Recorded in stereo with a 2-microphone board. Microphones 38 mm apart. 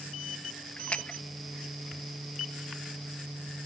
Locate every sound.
0.8 s a splash: 35° left (ahead or behind), 0.9 m